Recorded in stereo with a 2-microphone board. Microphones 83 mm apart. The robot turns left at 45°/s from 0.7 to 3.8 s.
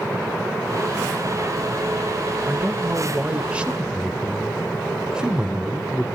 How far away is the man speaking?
About 0.9 m.